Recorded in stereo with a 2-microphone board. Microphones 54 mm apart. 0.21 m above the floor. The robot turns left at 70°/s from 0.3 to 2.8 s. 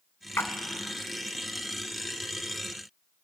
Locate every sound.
0.4 s a splash: 60° left (ahead or behind), 0.6 m